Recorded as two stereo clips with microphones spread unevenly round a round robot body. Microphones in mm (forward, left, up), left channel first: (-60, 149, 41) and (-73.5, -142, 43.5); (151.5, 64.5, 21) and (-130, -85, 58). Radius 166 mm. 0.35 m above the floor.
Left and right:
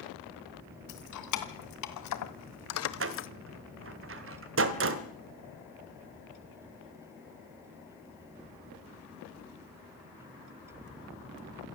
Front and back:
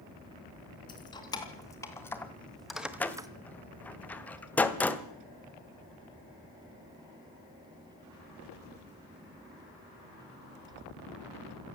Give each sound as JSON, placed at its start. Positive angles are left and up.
{"t": 0.9, "sound": "keys jangling", "azimuth_deg": 105, "distance_m": 3.0}
{"t": 3.0, "sound": "a door slam", "azimuth_deg": -50, "distance_m": 1.5}